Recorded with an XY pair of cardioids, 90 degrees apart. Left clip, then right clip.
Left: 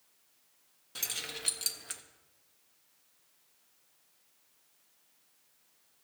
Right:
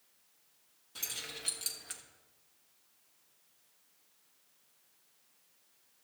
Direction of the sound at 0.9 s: 50° left.